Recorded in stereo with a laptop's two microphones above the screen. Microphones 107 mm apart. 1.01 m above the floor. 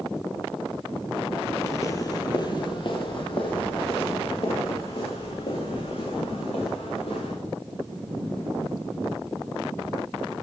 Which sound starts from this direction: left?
Footsteps, at 1.6 s.